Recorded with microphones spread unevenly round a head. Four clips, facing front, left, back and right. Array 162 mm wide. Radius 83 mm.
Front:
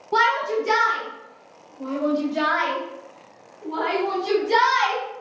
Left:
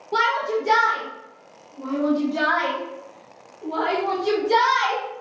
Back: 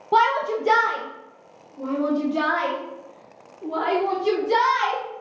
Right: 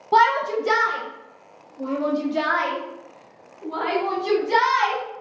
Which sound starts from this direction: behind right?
A shout, at 0.1 s.